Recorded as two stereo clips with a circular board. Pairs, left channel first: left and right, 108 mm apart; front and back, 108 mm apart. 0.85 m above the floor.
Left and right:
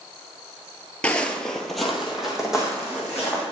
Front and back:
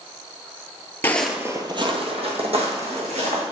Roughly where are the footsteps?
Ahead left.